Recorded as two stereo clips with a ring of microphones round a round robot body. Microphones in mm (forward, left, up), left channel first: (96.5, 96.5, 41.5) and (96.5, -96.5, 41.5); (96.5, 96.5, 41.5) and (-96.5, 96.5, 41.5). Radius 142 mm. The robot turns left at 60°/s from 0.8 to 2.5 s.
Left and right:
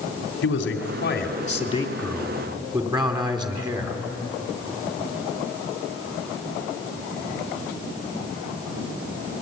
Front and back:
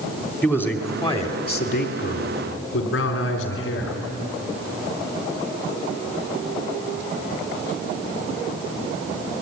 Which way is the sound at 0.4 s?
80° left.